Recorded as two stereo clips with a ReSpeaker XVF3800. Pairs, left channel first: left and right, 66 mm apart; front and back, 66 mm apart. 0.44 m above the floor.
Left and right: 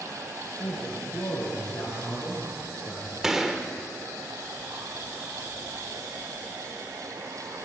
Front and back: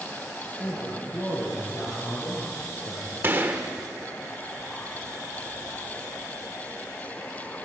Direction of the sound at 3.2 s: 165° right.